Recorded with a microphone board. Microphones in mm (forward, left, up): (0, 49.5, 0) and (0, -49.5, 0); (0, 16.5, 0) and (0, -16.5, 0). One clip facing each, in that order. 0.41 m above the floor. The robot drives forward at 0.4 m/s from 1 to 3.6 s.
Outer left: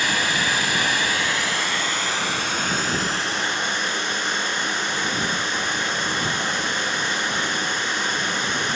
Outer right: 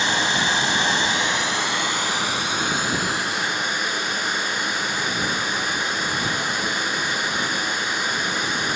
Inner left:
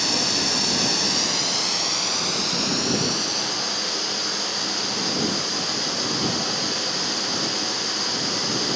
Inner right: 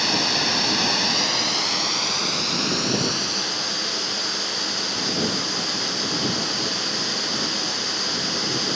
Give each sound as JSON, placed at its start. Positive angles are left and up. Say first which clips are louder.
{"t": 0.0, "sound": "running water", "louder": "outer right 1 dB, inner right 2 dB", "side_deg": -25, "distance_m": 0.9}